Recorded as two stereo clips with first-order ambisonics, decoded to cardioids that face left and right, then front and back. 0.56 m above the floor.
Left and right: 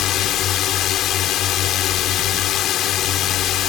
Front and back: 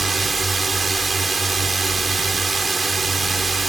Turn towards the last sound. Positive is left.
turn(degrees=110)